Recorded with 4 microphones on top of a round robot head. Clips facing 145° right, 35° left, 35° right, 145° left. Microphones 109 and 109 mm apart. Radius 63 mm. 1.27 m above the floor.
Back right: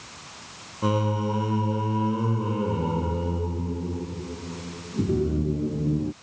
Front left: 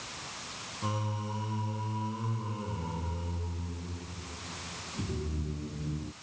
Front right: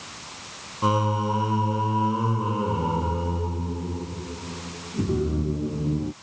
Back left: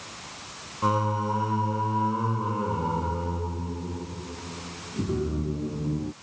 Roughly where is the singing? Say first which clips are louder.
Back right 12 dB, front right 2 dB; behind right.